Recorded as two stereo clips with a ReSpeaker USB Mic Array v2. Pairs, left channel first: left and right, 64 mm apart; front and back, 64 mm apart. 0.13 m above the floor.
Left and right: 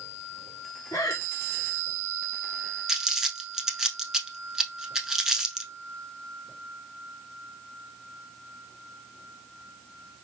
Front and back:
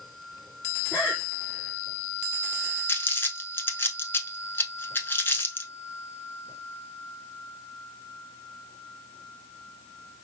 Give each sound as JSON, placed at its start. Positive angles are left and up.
{"t": 0.9, "sound": "breathing", "azimuth_deg": 75, "distance_m": 1.1}
{"t": 2.9, "sound": "crumpling", "azimuth_deg": -10, "distance_m": 0.8}